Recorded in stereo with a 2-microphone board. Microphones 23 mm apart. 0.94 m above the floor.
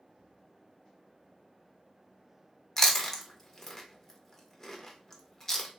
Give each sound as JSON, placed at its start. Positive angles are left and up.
{"t": 2.8, "sound": "chewing", "side_deg": 20, "distance_m": 0.6}